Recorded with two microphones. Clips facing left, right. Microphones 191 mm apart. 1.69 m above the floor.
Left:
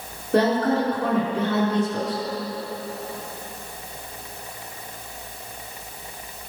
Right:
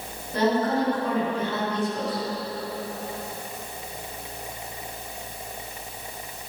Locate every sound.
0.3 s a woman speaking: 85° left, 5.5 m